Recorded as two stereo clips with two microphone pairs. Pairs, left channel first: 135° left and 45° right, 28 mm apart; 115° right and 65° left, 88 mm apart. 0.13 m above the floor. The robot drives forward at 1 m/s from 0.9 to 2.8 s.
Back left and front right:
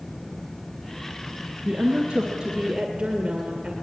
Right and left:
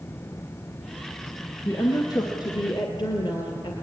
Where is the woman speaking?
75° right, 2 m; by 3.7 s 115° right, 2 m.